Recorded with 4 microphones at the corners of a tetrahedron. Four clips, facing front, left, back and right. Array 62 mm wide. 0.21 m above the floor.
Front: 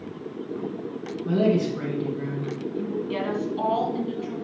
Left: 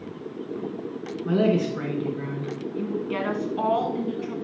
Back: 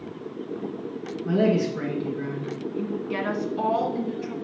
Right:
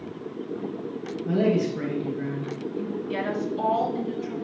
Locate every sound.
1.2 s a man speaking: 100° left, 2.5 m; by 2.5 s 95° left, 1.9 m
2.7 s a woman speaking: 115° left, 2 m